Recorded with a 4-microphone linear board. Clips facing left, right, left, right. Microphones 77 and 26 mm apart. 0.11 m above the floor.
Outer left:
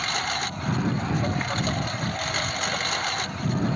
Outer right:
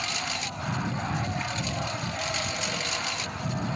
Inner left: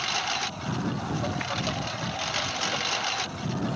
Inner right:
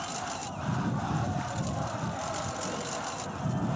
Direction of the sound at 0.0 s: 55° left (ahead or behind).